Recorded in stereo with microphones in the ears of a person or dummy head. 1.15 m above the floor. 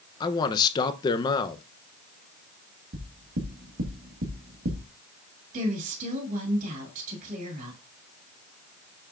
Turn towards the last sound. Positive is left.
turn(degrees=-45)  # may be behind; listen again after turning